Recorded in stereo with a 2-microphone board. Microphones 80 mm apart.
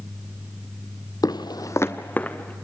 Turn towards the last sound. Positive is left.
turn(degrees=15)  # may be behind; listen again after turning